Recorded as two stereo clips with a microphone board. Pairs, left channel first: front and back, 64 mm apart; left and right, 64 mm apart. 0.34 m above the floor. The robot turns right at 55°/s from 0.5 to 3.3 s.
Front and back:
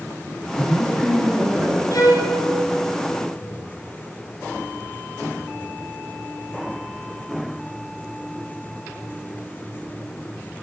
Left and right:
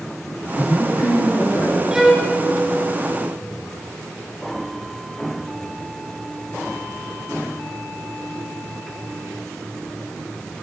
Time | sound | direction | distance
0.6 | a woman speaking | 70° left | 3.5 m
1.9 | a violin | 10° right | 2 m